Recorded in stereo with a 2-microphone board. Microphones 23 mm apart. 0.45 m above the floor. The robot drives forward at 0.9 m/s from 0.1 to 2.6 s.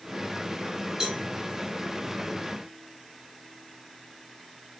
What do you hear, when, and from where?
1.0 s a cowbell: 50° right (ahead or behind), 4 m